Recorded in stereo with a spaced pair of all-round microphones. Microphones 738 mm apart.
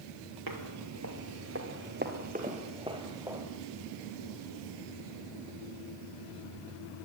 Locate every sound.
0.5 s footsteps: 25° right (ahead or behind), 2.5 m; by 3.5 s 5° right (ahead or behind), 3 m